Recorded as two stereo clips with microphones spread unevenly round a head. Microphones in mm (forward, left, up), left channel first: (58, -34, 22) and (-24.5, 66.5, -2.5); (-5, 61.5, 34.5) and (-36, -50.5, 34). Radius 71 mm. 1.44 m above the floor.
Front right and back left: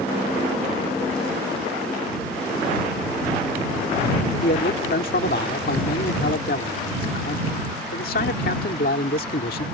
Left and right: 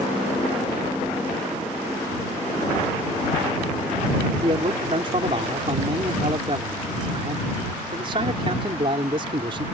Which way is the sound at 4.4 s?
55° right.